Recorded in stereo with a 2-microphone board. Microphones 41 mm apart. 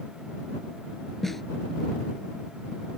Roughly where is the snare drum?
Centre.